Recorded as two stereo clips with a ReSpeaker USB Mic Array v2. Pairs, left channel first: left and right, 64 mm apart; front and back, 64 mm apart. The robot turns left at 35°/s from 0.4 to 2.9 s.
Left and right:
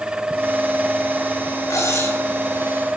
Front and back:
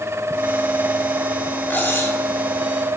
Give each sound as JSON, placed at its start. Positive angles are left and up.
{"t": 1.7, "sound": "cutlery clinking", "azimuth_deg": 60, "distance_m": 5.0}